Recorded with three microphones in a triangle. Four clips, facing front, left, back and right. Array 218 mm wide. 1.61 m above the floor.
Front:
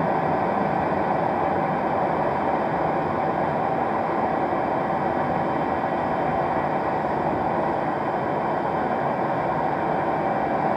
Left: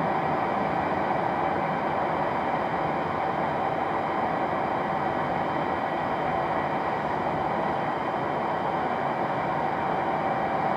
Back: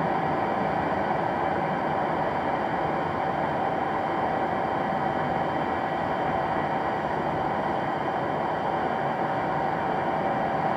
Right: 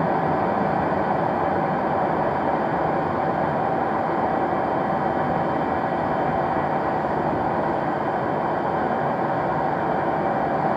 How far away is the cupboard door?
I don't hear a cupboard door.